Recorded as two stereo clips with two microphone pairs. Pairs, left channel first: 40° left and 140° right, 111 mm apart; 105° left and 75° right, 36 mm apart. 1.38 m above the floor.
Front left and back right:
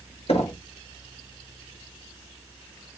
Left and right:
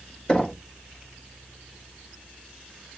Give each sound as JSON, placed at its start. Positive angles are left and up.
{"t": 0.3, "sound": "knocking", "azimuth_deg": 40, "distance_m": 1.0}